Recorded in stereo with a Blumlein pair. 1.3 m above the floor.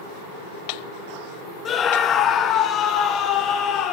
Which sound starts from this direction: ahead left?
A scream, at 1.6 s.